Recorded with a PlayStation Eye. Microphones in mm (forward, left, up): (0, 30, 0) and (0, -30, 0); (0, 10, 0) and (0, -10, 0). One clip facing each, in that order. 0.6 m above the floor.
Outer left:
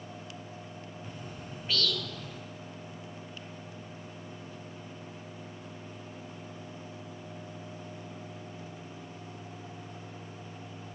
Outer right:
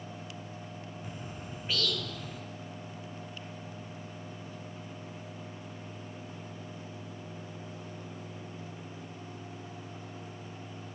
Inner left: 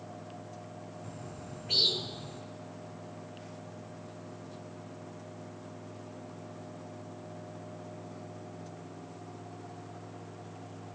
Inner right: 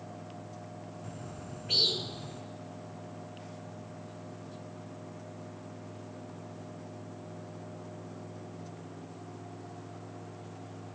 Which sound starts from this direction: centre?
A bird, at 1.0 s.